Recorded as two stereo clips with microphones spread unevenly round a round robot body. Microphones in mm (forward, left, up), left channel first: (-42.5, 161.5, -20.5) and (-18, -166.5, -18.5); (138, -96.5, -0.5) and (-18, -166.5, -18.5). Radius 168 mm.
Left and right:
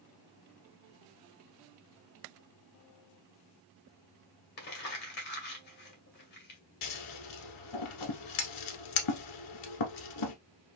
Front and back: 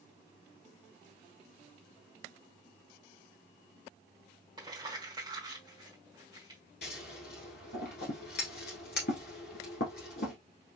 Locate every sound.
4.6 s crumpling: 145° left, 1.4 m
6.8 s scissors: 65° left, 1.0 m